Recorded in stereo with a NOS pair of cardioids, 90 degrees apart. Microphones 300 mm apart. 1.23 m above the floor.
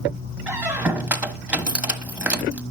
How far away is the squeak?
About 1.0 m.